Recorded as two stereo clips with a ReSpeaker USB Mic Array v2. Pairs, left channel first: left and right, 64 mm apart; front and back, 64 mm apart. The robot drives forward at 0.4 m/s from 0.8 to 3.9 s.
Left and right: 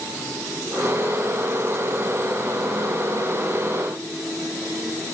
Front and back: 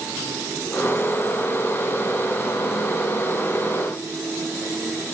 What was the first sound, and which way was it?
Only background noise.